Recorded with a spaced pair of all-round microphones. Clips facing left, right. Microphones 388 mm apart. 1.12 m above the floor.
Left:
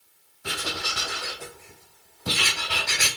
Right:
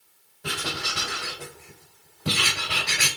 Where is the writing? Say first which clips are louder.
Right 1 dB; 85° right, 4.5 m.